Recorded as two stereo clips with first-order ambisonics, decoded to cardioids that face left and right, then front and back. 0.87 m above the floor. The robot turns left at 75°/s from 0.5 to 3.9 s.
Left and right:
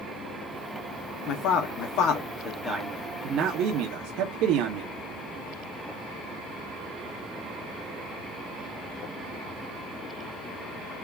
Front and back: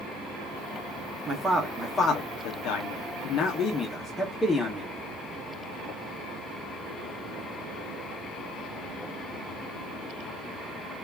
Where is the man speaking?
120° left, 0.6 m; by 4.9 s 75° right, 0.6 m.